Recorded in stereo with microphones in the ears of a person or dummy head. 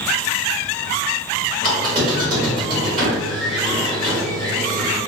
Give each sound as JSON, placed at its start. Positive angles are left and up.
{"t": 1.6, "sound": "a squeak", "side_deg": -35, "distance_m": 1.6}